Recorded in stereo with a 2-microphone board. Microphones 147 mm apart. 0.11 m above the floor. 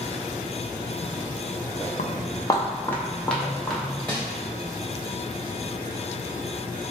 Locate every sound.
2.0 s footsteps: 65° left (ahead or behind), 0.5 m; by 4.0 s centre (ahead or behind), 2 m
4.1 s crumpling: 10° left (ahead or behind), 1.5 m